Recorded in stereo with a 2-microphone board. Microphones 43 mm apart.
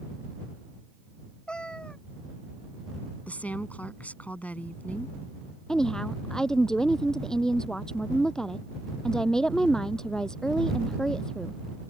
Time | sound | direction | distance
1.5 | a cat meowing | 20° left (ahead or behind) | ?
3.3 | a woman speaking | 35° left (ahead or behind) | ?
5.7 | a woman speaking | 15° left (ahead or behind) | ?